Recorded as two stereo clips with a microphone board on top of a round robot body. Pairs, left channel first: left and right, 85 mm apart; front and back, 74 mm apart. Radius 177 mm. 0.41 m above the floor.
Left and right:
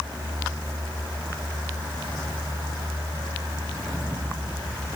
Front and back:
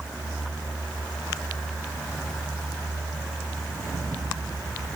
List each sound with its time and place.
Only background noise.